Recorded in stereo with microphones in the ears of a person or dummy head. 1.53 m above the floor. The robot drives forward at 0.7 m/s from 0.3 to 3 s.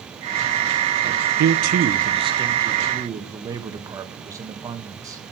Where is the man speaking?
50° right (ahead or behind), 0.6 m; by 5.2 s 20° right (ahead or behind), 1.5 m.